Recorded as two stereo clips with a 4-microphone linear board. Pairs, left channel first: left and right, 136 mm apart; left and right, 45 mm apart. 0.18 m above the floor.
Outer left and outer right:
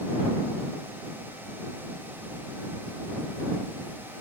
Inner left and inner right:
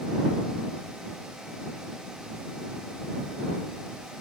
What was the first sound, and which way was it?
Only background noise.